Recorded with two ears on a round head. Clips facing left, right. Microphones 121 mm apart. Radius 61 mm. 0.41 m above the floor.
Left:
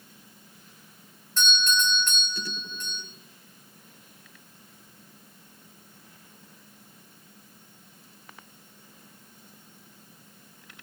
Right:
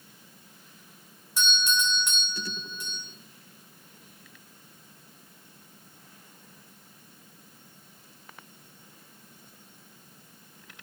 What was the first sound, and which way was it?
A doorbell, 10° right (ahead or behind).